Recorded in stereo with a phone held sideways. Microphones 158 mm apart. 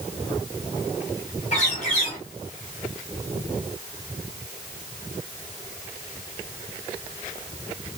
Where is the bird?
50° left (ahead or behind), 1.6 m.